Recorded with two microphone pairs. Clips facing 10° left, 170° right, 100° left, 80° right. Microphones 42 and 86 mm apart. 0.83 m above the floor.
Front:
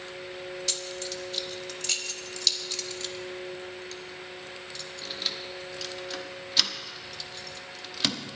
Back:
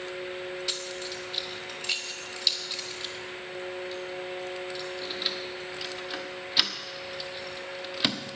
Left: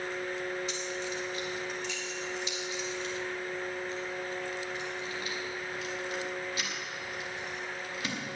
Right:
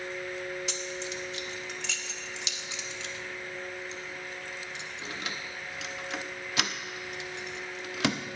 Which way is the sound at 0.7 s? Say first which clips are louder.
Even, left 1 dB; 95° right.